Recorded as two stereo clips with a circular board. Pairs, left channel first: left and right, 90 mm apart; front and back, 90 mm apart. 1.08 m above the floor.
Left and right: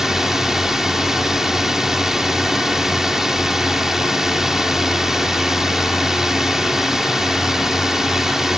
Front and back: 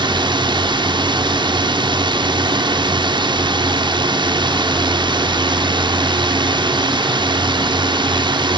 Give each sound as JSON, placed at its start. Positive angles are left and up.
{"t": 0.0, "sound": "a drone", "azimuth_deg": -175}